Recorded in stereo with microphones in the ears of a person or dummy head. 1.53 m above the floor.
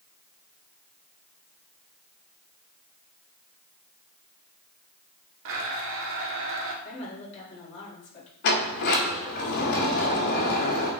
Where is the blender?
70° right (ahead or behind), 1.3 m.